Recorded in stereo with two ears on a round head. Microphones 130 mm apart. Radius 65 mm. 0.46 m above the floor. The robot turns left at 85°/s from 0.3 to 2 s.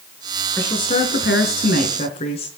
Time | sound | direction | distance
0.6 | a woman speaking | 165° left | 4.5 m